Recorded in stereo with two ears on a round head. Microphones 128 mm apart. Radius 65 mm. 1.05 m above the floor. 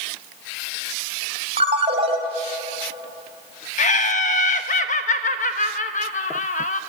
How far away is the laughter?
About 1.3 m.